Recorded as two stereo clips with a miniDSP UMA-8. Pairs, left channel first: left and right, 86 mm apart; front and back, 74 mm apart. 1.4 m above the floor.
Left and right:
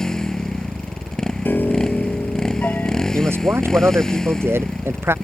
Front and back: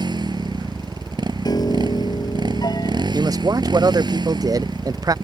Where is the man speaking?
150° right.